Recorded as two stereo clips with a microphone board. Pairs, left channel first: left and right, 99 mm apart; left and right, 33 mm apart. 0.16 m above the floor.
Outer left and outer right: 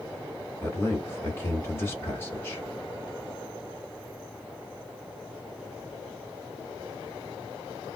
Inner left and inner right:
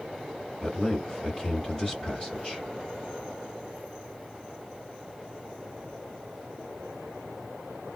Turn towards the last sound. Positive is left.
turn(degrees=25)  # may be behind; listen again after turning